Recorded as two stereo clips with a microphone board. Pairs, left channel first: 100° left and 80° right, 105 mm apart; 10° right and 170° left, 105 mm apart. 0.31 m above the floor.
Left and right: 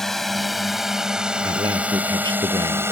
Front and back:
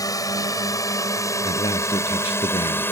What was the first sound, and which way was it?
A drone, 15° left.